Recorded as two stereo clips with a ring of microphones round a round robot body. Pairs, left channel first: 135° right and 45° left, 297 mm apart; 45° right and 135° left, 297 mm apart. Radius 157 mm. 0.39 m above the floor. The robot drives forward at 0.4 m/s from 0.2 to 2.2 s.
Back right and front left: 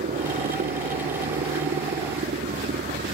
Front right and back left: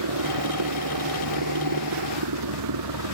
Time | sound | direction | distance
0.0 | a helicopter | 110° left | ?